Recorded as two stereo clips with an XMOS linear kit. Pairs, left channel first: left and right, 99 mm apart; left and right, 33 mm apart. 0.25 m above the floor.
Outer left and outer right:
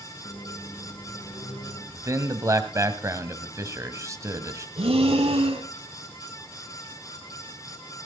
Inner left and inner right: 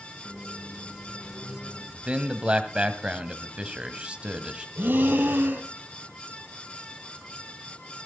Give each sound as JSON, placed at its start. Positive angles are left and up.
{"t": 0.2, "sound": "a microwave", "side_deg": 75, "distance_m": 7.5}
{"t": 1.9, "sound": "a man speaking", "side_deg": -30, "distance_m": 1.7}
{"t": 4.8, "sound": "breathing", "side_deg": -85, "distance_m": 3.0}